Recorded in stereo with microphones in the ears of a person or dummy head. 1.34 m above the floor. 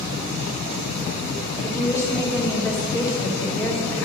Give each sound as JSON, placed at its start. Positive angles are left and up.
{"t": 1.6, "sound": "a woman speaking", "side_deg": 15, "distance_m": 1.8}